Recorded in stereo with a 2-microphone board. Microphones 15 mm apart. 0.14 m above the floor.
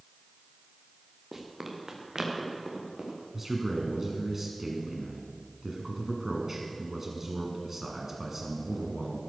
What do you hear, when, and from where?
1.3 s running footsteps: 25° right (ahead or behind), 2.5 m; by 3.2 s 60° right (ahead or behind), 4 m
3.3 s a man speaking: 20° right (ahead or behind), 1.6 m